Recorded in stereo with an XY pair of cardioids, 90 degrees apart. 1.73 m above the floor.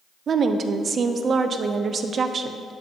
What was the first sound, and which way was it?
A woman speaking, 55° right.